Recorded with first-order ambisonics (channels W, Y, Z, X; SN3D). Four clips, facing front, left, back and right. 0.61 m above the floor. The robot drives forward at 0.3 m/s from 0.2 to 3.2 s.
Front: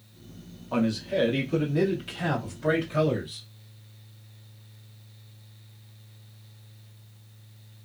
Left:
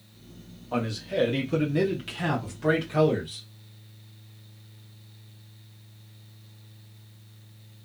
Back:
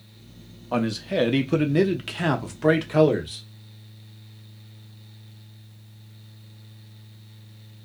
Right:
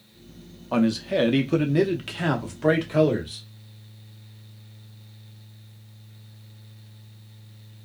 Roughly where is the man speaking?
Behind right.